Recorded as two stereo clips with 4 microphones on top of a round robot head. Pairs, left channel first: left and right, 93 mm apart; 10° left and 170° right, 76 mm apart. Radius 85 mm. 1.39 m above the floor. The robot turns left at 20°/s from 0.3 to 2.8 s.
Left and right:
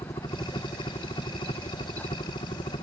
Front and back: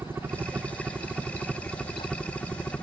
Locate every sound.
0.0 s a helicopter: 130° left; by 2.8 s 80° left